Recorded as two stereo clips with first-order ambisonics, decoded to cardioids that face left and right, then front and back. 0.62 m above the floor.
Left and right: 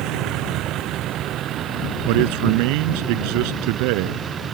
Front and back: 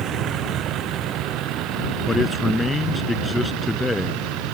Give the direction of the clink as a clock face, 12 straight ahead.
No clink in this recording.